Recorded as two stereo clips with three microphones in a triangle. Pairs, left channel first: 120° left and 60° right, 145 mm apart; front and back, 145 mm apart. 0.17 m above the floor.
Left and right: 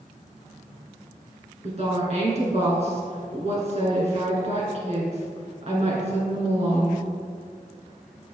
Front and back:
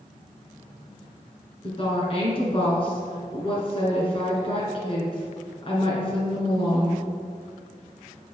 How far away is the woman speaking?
About 2 m.